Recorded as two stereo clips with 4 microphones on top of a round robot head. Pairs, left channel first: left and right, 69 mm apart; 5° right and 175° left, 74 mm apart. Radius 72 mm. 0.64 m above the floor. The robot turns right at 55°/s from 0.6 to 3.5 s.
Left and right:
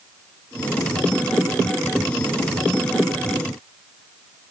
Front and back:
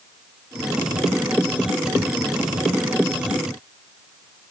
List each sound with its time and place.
Only background noise.